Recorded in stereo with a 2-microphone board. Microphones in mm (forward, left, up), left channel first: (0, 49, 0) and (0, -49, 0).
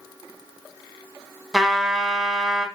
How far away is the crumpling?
I don't hear crumpling.